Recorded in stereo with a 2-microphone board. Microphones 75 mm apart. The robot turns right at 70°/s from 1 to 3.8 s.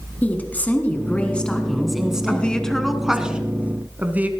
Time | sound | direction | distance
0.2 | a woman speaking | 20° left (ahead or behind) | 1.7 m
2.3 | a woman speaking | 15° left (ahead or behind) | 1.2 m